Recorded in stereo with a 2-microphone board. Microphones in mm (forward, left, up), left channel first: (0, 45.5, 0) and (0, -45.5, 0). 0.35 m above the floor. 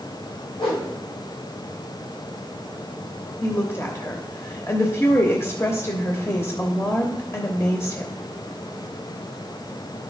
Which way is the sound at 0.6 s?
80° left.